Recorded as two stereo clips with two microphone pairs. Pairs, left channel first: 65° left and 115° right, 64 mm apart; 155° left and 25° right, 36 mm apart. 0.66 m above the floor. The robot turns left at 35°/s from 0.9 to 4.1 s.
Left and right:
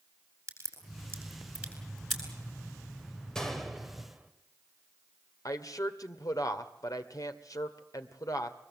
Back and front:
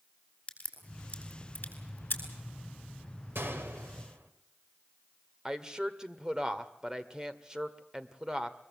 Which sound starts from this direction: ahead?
A gunshot, at 3.4 s.